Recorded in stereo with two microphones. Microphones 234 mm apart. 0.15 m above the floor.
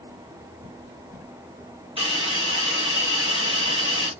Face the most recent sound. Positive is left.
turn(degrees=-25)  # may be behind; listen again after turning